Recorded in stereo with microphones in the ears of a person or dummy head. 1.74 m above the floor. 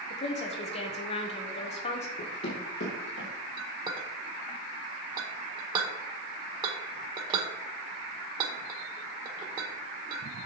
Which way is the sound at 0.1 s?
35° left (ahead or behind).